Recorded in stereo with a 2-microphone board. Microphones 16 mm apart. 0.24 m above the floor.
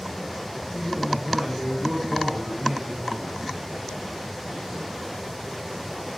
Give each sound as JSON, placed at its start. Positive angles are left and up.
{"t": 0.7, "sound": "a man speaking", "side_deg": -65, "distance_m": 10.0}